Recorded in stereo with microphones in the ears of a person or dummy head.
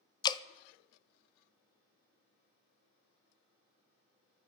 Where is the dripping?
25° left (ahead or behind), 0.6 m.